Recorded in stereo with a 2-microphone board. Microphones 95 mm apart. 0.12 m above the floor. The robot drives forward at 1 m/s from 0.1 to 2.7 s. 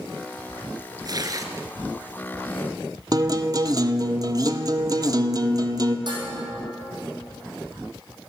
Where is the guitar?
40° right (ahead or behind), 0.6 m.